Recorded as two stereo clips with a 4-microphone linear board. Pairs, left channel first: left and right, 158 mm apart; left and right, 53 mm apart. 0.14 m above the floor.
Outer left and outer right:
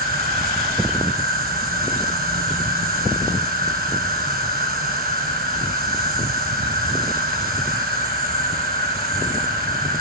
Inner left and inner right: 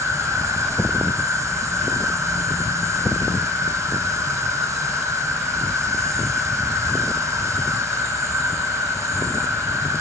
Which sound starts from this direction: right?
An insect, at 0.0 s.